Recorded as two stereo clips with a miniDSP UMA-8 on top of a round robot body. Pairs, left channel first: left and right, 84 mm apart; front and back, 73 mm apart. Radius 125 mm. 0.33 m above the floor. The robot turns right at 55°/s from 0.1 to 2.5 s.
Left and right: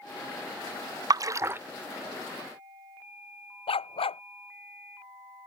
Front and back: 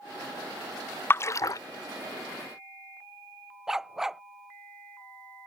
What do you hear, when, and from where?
1.1 s a splash: 55° right; by 1.6 s 25° right
3.7 s a dog barking: 95° left